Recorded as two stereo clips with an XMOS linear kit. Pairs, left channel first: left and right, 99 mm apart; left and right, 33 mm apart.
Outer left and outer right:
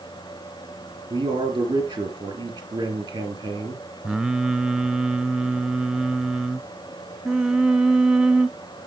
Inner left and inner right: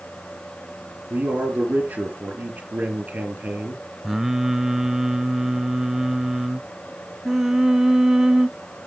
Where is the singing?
10° right (ahead or behind), 0.5 m.